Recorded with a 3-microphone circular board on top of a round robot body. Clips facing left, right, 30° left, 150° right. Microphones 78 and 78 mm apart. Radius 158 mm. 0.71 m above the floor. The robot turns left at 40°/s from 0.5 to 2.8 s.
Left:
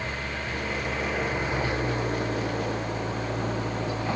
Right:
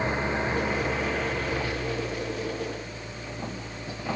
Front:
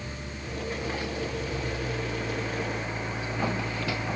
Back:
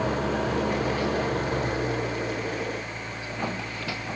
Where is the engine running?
160° right; by 4.2 s 110° left.